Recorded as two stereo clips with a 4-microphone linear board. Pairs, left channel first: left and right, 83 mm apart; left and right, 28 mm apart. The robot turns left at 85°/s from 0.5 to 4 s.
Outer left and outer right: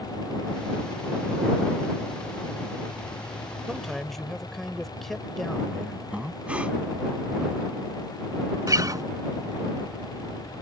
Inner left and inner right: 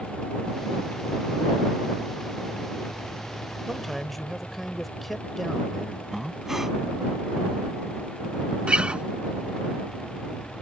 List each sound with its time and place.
3.7 s a man speaking: 10° right (ahead or behind); by 6.0 s 5° left (ahead or behind)
6.1 s breathing: 15° right (ahead or behind)
8.7 s a guitar: 45° right (ahead or behind)